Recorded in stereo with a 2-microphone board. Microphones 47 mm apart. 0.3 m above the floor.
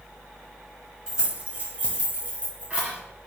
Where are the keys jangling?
15° right (ahead or behind), 1.3 m; by 3.0 s 25° right (ahead or behind), 2 m.